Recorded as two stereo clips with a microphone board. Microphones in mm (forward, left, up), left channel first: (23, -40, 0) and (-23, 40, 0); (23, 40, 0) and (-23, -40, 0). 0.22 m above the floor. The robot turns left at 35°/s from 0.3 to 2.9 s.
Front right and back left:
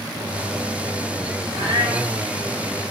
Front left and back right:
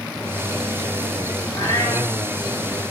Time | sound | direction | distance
1.5 | a cat meowing | 115° left | 2.5 m